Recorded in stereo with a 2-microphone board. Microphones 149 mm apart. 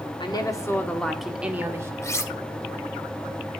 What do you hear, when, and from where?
0.2 s a woman speaking: 30° left (ahead or behind), 1.3 m; by 1.9 s 20° right (ahead or behind), 1.5 m
2.0 s cutlery clinking: 20° left (ahead or behind), 0.9 m